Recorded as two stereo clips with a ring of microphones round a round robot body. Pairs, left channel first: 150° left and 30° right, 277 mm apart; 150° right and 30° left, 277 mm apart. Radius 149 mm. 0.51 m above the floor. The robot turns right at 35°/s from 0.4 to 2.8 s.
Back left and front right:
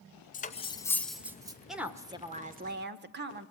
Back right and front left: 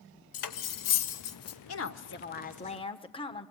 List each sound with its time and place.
0.3 s cutlery clinking: 145° right, 1.1 m; by 1.6 s 105° right, 1.1 m
1.7 s a woman speaking: 120° right, 1.3 m; by 3.5 s 80° right, 1.3 m